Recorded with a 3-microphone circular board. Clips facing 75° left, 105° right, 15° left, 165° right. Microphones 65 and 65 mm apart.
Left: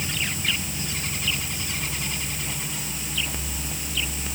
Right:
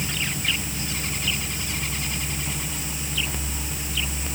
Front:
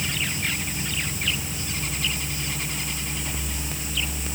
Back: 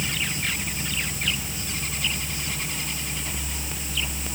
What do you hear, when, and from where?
Only background noise.